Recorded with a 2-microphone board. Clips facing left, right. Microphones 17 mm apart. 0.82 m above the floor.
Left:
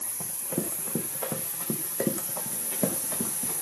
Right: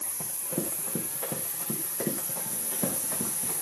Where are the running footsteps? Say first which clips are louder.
Left 1 dB; 10° left (ahead or behind), 4.5 m; by 3.5 s 75° left (ahead or behind), 5 m.